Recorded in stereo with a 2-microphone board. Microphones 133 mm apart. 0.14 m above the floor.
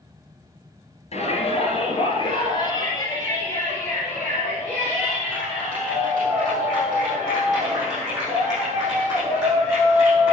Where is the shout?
55° left (ahead or behind), 3 m; by 10.3 s 20° right (ahead or behind), 10.5 m.